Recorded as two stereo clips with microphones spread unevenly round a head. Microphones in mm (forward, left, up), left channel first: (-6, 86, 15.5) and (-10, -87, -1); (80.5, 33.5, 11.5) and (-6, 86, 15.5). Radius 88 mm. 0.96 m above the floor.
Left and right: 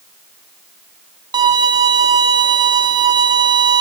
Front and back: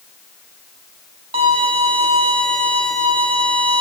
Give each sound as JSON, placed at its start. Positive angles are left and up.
{"t": 1.3, "sound": "a violin", "azimuth_deg": -160, "distance_m": 0.5}